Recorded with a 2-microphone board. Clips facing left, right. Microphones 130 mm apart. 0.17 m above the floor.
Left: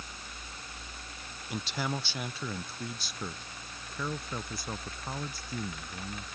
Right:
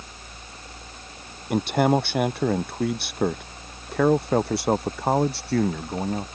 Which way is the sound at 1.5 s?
55° right (ahead or behind).